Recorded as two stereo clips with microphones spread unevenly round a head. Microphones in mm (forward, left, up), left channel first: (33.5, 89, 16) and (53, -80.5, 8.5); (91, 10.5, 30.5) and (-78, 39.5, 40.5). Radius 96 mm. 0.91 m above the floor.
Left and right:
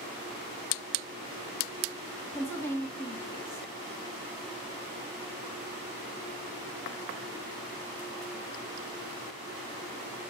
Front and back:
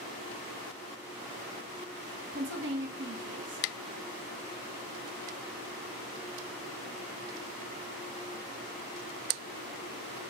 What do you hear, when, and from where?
2.3 s a woman speaking: 175° left, 1.8 m